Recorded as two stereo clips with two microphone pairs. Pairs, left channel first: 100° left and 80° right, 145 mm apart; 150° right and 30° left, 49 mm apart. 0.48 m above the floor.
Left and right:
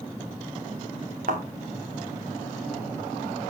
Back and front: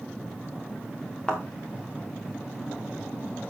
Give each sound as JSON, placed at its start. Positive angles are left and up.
{"t": 1.3, "sound": "a thud", "azimuth_deg": -80, "distance_m": 3.0}